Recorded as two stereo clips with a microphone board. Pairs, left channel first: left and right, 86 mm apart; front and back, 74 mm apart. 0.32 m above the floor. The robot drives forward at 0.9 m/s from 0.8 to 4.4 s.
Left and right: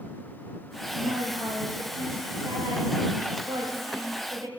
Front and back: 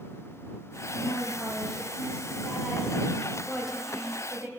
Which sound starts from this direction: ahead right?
A woman speaking, at 0.9 s.